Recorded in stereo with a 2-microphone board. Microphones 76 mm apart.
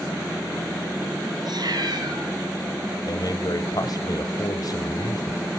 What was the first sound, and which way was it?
A cat meowing, 65° right (ahead or behind).